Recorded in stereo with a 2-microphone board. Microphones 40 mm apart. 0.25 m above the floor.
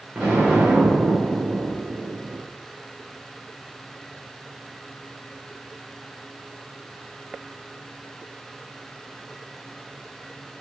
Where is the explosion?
30° right (ahead or behind), 7 m.